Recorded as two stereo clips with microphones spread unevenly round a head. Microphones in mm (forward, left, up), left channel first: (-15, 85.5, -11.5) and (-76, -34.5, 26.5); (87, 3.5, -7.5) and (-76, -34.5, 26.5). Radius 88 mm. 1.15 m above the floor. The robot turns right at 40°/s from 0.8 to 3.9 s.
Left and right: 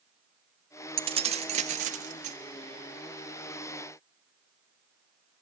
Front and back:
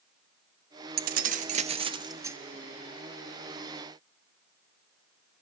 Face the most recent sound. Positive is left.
turn(degrees=-35)